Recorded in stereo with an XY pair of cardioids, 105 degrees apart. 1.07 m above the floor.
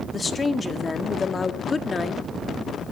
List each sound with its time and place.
0.1 s a woman speaking: 30° left, 1.8 m